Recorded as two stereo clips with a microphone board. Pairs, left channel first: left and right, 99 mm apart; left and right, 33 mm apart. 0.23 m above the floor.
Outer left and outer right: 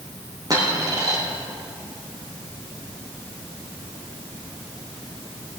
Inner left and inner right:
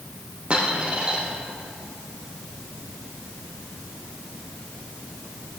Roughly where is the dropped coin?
Right.